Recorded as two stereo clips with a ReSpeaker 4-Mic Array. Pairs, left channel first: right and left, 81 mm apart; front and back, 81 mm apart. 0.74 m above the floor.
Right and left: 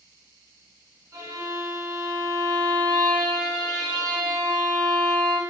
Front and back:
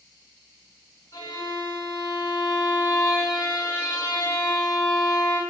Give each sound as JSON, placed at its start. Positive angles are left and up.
{"t": 1.1, "sound": "a violin", "azimuth_deg": 45, "distance_m": 1.1}